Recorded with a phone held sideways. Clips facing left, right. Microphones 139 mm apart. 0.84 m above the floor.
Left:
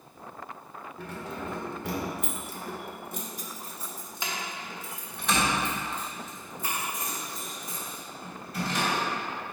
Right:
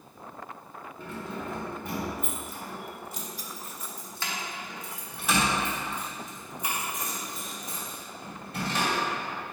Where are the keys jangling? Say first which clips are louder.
Even; 75° left (ahead or behind), 1.6 m; by 9.0 s 30° right (ahead or behind), 3.5 m.